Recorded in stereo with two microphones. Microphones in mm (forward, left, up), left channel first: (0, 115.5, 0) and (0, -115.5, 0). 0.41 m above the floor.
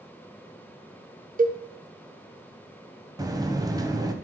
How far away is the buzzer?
About 0.8 m.